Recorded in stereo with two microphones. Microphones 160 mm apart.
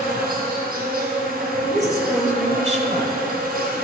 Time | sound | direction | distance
0.0 | an insect | 80° right | 1.6 m
1.7 | a woman speaking | 45° right (ahead or behind) | 1.5 m